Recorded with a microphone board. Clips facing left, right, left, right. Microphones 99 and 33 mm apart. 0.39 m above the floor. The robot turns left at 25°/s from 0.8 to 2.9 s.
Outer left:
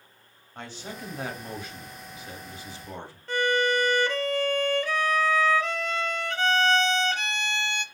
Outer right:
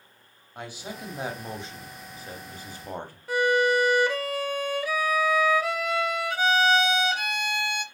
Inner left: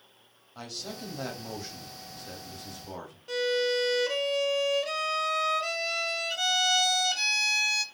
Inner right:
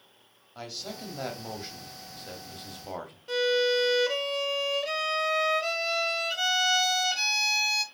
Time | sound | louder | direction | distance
0.6 | a man speaking | outer right 1 dB, inner right 1 dB | 10° right | 2.0 m
3.3 | a violin | outer right 2 dB, inner right 2 dB | 5° right (ahead or behind) | 0.8 m